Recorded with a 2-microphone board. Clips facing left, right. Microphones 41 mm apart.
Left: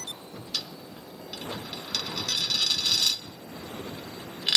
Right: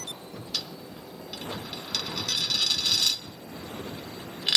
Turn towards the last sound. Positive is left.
turn(degrees=5)  # may be behind; listen again after turning